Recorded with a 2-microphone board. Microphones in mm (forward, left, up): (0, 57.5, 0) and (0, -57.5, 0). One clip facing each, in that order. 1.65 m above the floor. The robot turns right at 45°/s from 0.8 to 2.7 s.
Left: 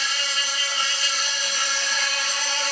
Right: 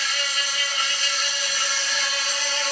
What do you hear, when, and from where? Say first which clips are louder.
0.0 s an insect: even; 40° left, 1.2 m; by 2.7 s 125° left, 1.2 m